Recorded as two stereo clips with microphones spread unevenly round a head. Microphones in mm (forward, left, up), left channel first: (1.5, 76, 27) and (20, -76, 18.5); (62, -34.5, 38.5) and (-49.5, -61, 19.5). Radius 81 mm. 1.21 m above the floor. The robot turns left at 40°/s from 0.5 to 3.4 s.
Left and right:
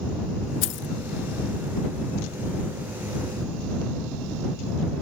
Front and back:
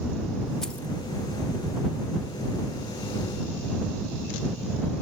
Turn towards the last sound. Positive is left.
turn(degrees=-10)